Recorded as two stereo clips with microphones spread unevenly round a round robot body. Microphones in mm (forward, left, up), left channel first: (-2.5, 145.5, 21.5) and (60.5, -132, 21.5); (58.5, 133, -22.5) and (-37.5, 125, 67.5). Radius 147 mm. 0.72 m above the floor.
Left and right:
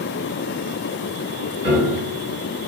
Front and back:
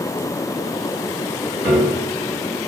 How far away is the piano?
About 1.6 m.